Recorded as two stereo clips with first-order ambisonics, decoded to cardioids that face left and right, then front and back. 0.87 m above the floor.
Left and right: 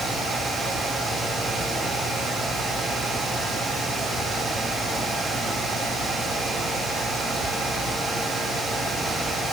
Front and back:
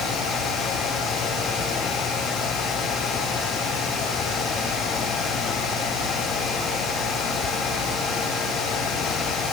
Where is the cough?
I don't hear a cough.